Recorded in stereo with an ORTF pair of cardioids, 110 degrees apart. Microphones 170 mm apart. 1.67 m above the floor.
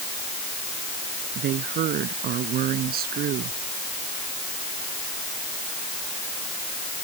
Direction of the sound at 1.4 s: 65° right.